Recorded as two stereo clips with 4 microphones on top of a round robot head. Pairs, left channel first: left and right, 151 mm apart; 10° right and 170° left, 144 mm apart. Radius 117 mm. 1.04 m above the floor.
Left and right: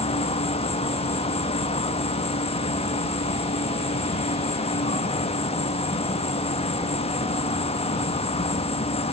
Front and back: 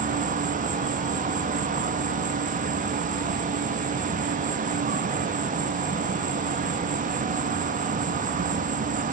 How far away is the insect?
About 1.0 m.